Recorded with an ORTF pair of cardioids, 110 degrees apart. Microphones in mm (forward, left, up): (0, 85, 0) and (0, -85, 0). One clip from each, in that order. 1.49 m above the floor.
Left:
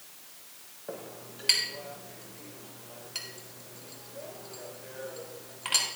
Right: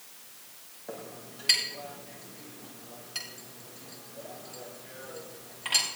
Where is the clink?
15° left, 6.5 m.